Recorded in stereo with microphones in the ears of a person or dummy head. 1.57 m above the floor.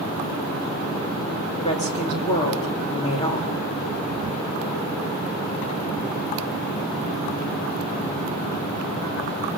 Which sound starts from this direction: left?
A woman speaking, at 1.6 s.